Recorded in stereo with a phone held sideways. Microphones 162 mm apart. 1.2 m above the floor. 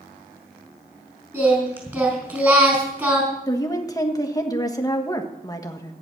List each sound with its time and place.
1.3 s singing: 15° right (ahead or behind), 4.5 m
3.5 s a woman speaking: 20° left (ahead or behind), 1.6 m